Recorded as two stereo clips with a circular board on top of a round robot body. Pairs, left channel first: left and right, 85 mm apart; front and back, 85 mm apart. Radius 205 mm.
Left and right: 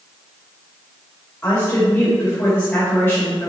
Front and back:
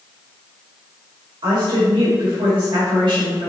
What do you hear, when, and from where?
1.4 s a woman speaking: 155° left, 3 m